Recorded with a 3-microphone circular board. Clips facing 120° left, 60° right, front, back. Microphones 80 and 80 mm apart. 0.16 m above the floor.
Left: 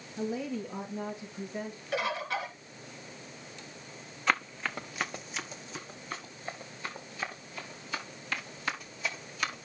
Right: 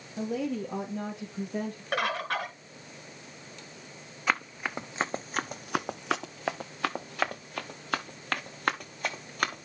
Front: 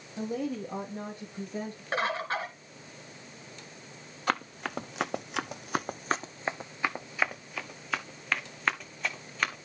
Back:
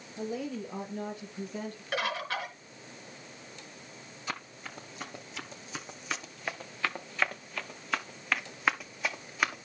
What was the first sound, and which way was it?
A woman speaking, 45° right.